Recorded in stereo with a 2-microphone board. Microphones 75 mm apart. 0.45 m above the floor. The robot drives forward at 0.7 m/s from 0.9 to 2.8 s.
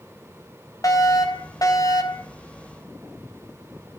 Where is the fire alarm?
55° left (ahead or behind), 3.5 m; by 2.3 s 60° left (ahead or behind), 3.5 m.